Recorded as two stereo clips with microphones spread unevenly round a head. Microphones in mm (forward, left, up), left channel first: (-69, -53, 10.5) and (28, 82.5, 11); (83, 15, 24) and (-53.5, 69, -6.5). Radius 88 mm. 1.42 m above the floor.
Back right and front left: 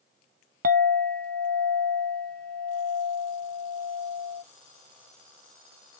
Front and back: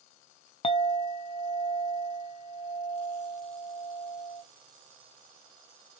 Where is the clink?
15° left, 0.9 m.